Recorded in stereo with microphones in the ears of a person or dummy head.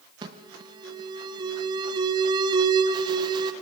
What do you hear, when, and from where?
0.2 s an alarm: 25° right (ahead or behind), 1.3 m